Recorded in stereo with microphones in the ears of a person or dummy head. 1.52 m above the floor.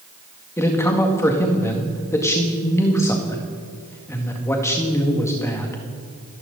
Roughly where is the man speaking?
Centre.